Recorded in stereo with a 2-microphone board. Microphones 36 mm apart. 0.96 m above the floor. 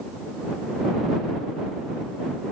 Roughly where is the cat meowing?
No cat meowing in this recording.